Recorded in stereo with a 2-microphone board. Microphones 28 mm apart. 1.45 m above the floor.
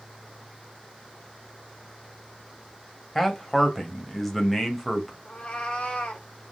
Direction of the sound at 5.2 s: 35° left (ahead or behind).